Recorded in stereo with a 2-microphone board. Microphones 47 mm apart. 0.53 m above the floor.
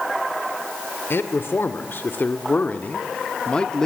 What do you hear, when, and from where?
1.1 s a man speaking: 55° left (ahead or behind), 1.9 m; by 3.9 s 15° left (ahead or behind), 1.1 m